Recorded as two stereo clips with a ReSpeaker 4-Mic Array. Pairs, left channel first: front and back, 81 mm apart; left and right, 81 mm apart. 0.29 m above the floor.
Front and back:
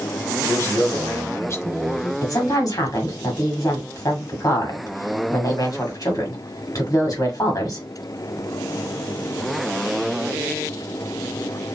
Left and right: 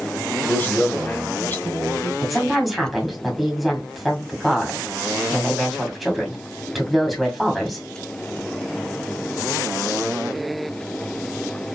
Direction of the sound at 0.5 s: 35° left.